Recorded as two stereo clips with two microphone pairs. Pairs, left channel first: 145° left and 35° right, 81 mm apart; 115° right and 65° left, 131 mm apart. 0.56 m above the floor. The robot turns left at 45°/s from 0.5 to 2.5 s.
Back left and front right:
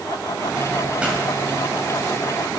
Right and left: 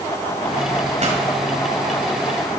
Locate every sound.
1.0 s a pop: 40° left, 2.5 m; by 1.2 s 35° left, 2.5 m